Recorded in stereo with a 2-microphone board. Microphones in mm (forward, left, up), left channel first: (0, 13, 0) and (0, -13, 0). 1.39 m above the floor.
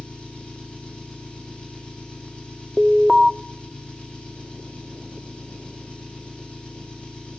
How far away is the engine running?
About 9 m.